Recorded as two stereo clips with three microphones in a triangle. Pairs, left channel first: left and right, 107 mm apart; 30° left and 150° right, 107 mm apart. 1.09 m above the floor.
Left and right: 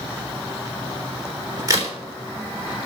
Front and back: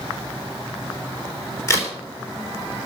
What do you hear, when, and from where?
1.7 s a crack: 35° right, 3.5 m